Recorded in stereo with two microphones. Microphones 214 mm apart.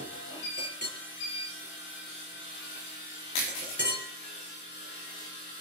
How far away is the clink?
About 5.5 m.